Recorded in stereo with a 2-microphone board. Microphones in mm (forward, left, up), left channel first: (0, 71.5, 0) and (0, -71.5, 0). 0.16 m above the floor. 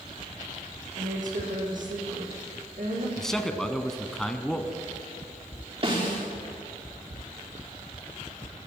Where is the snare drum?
45° right (ahead or behind), 7 m.